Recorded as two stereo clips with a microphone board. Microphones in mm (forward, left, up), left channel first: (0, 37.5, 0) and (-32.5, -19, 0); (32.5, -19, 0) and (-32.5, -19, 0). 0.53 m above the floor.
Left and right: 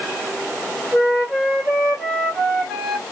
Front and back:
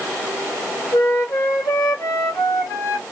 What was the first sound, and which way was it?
A flute, 30° right.